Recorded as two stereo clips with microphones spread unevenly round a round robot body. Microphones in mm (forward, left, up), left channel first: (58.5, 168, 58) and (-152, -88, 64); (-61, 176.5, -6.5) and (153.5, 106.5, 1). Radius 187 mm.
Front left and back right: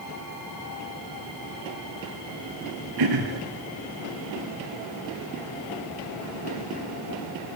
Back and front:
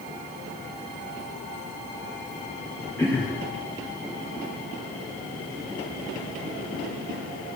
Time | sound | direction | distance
3.0 | throat clearing | 115° right | 1.8 m